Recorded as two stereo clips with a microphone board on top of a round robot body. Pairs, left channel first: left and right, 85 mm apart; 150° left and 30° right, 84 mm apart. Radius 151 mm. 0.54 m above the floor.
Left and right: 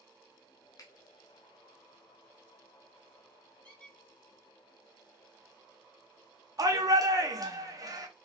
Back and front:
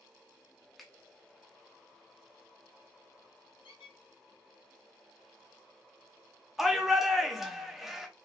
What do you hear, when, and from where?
0.8 s a finger snap: 60° left, 1.0 m
3.6 s a squeak: 165° left, 0.5 m
6.6 s a shout: 115° right, 1.0 m